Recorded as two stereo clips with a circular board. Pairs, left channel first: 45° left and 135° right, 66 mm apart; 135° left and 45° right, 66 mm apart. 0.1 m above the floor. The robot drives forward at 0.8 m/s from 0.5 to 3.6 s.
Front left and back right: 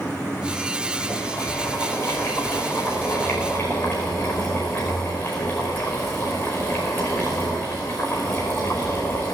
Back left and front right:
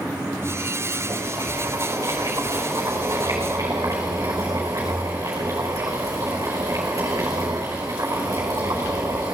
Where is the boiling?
5° right, 7.5 m; by 9.4 s 10° right, 5.5 m.